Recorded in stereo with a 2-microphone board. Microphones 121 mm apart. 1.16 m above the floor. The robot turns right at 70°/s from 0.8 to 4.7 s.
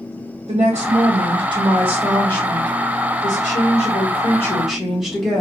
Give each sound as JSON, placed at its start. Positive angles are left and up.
{"t": 0.5, "sound": "a woman speaking", "azimuth_deg": -90, "distance_m": 1.1}